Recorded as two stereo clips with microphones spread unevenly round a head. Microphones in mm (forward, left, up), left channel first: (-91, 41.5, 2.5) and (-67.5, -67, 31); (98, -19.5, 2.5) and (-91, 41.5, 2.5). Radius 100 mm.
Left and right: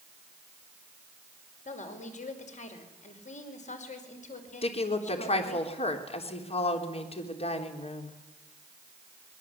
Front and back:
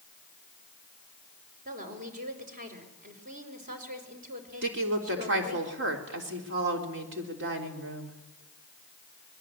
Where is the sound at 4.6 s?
135° left, 4 m.